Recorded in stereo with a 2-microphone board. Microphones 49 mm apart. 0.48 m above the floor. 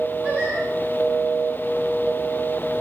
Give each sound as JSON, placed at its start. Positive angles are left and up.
{"t": 0.2, "sound": "singing", "side_deg": -25, "distance_m": 4.5}